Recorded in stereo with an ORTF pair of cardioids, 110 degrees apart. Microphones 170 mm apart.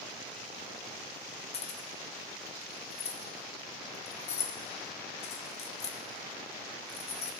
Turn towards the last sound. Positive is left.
turn(degrees=40)